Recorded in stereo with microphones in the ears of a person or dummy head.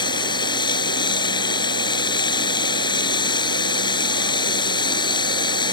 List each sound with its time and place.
0.0 s running water: 20° left (ahead or behind)